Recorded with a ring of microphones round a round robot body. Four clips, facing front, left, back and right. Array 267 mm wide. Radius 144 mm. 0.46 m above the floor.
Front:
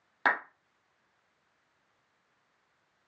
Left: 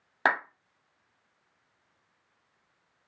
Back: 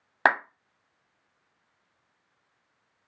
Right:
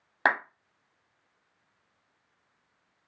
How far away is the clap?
About 0.8 m.